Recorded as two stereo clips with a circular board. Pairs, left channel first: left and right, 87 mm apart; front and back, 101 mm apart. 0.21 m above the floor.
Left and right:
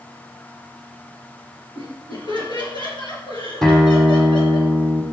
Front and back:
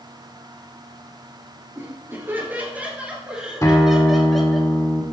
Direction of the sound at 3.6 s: 15° left.